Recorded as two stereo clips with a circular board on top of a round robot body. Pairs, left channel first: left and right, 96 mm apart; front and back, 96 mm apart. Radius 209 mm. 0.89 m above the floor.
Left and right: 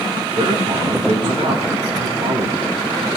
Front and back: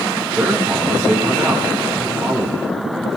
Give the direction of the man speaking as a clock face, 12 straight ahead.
3 o'clock.